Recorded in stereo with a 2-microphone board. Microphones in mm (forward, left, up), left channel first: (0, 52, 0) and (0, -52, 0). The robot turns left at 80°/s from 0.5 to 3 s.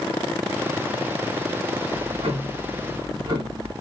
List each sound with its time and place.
1.9 s ticking: 50° right, 1.4 m; by 3.7 s 140° right, 1.4 m